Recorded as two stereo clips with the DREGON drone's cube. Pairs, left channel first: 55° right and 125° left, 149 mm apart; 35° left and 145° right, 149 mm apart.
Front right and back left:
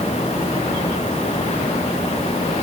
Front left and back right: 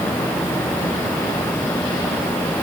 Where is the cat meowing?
No cat meowing in this recording.